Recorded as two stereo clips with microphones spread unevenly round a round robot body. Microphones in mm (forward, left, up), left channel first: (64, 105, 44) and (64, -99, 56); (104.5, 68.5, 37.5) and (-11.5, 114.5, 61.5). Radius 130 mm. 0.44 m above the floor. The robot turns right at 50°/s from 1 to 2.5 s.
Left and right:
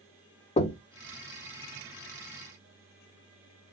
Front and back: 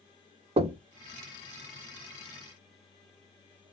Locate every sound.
0.6 s knocking: 130° left, 0.6 m